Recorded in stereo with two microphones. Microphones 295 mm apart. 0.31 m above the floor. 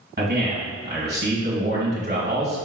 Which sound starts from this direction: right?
A man speaking, at 0.2 s.